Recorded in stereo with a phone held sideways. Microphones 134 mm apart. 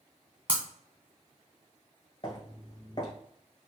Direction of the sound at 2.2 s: 35° left (ahead or behind).